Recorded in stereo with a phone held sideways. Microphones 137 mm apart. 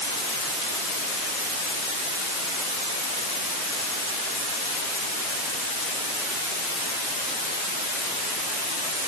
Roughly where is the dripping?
No dripping in this recording.